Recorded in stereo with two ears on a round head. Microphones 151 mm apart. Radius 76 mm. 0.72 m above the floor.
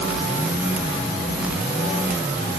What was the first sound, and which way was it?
Only background noise.